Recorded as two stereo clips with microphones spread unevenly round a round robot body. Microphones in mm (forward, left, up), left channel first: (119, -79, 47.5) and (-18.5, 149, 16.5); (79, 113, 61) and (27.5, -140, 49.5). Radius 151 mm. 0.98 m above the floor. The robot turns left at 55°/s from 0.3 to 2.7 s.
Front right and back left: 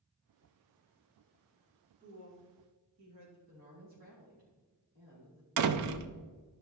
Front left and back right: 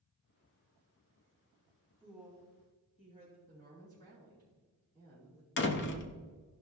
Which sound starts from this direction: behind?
A woman speaking, at 2.0 s.